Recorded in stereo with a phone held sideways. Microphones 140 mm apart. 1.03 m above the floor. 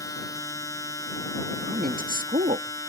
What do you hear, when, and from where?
0.0 s a machine running: 25° left (ahead or behind)
1.6 s a woman speaking: 80° right